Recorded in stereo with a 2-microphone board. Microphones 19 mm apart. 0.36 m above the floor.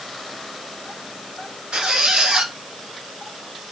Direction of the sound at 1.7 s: 65° right (ahead or behind).